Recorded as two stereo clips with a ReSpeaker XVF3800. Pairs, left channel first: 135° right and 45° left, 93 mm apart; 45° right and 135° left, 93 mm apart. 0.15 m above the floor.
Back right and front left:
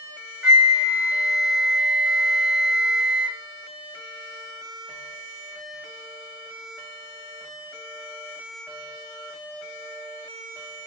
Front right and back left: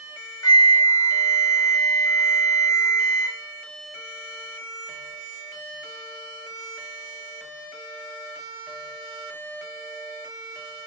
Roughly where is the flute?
Ahead right.